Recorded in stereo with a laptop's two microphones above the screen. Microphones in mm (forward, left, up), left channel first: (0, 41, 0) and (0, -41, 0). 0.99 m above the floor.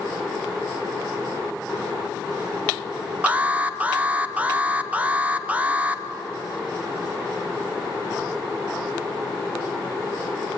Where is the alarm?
20° right (ahead or behind), 0.7 m.